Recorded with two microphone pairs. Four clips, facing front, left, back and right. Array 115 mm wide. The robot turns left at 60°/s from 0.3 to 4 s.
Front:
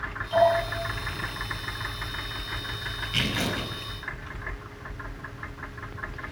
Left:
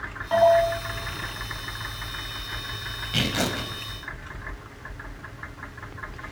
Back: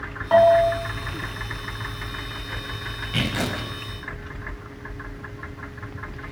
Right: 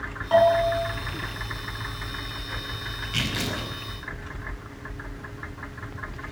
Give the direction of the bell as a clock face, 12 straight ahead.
6 o'clock.